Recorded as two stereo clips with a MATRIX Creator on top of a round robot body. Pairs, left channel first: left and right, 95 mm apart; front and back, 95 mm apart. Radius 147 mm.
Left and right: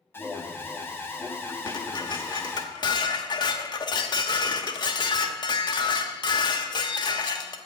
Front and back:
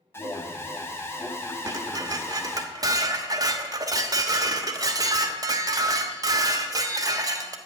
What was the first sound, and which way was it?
An alarm, 45° left.